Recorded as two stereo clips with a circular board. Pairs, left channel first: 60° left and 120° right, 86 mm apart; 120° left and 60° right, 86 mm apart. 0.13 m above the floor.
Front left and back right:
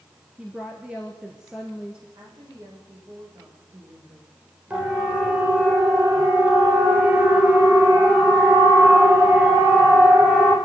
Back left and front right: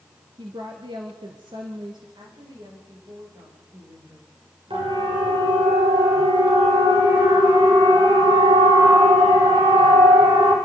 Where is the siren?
50° right, 9.5 m.